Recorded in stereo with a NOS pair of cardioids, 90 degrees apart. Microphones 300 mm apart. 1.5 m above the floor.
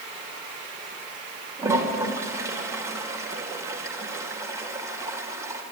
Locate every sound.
1.6 s a toilet flushing: 10° right, 3 m